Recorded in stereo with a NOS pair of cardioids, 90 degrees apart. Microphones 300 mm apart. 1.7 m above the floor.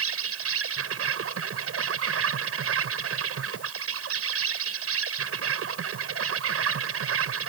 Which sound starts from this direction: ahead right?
An insect, at 0.0 s.